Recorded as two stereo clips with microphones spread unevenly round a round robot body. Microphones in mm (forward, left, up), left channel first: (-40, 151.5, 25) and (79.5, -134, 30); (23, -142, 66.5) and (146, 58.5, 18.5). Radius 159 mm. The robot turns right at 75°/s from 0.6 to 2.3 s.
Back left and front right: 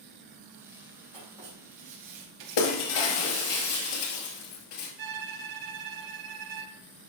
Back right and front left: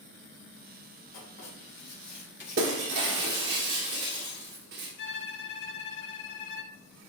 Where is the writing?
165° right, 3.5 m; by 2.6 s 80° right, 3.5 m.